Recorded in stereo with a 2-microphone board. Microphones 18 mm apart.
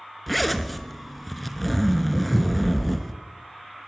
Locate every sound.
0.3 s a zipper: 5° left (ahead or behind), 0.9 m
2.1 s footsteps: 25° left (ahead or behind), 8 m